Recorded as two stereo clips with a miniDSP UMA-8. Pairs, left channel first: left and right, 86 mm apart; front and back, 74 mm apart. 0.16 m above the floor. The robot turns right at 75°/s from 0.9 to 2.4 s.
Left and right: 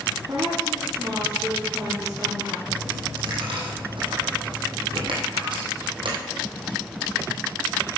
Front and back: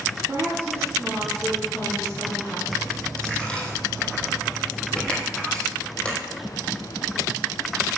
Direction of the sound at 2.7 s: 75° right.